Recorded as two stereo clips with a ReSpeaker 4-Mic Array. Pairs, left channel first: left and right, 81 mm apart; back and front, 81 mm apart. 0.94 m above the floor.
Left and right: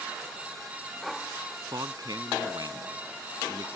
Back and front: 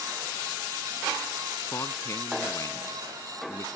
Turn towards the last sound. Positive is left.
turn(degrees=-130)